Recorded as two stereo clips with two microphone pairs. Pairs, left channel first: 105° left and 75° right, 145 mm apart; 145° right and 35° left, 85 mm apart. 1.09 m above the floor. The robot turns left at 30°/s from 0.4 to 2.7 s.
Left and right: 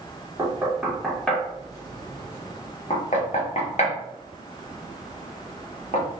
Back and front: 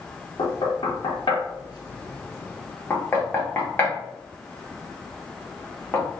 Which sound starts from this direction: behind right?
Knocking, at 0.4 s.